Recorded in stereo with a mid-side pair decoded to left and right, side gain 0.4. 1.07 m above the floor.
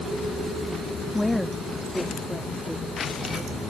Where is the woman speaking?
10° left; by 3.6 s 10° right.